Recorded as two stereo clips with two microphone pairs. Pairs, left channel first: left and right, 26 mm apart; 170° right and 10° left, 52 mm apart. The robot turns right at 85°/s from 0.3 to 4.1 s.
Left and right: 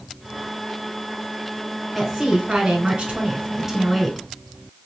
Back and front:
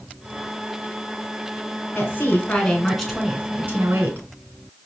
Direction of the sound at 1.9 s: 170° right.